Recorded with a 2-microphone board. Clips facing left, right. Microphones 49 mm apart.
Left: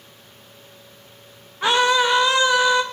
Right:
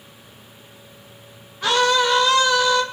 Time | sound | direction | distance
1.6 | a scream | 20° left (ahead or behind) | 1.8 m